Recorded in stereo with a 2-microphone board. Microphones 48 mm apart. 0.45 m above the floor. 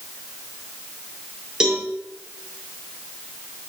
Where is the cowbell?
15° right (ahead or behind), 6 m.